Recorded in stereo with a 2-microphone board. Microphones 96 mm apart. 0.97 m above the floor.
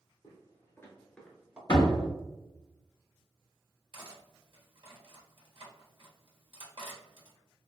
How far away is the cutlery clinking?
About 1.1 m.